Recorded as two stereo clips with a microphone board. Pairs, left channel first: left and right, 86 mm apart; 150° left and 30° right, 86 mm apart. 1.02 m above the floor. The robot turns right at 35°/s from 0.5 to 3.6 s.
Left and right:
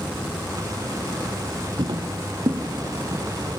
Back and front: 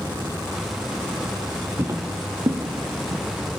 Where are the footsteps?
80° right, 2.0 m; by 3.2 s 35° right, 3.5 m.